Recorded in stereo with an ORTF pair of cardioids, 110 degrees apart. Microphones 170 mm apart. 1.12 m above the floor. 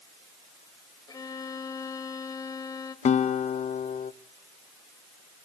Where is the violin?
25° left, 2 m.